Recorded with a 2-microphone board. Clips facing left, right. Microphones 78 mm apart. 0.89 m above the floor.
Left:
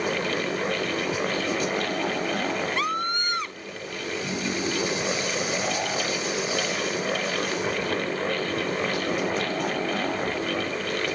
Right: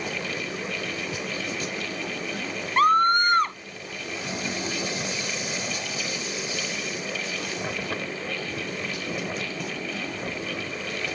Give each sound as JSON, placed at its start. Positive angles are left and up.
{"t": 2.8, "sound": "a scream", "side_deg": -45}